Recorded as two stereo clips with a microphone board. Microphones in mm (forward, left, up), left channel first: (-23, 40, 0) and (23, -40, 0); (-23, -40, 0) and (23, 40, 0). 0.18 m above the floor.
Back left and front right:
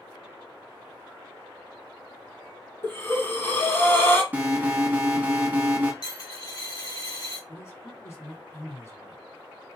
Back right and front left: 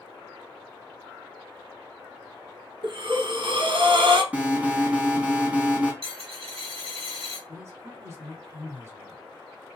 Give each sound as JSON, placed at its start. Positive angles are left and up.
{"t": 2.8, "sound": "breathing", "azimuth_deg": 60, "distance_m": 0.9}
{"t": 4.3, "sound": "an alarm", "azimuth_deg": -5, "distance_m": 1.2}
{"t": 6.0, "sound": "a dropped coin", "azimuth_deg": 85, "distance_m": 2.0}
{"t": 7.5, "sound": "a man speaking", "azimuth_deg": 90, "distance_m": 1.3}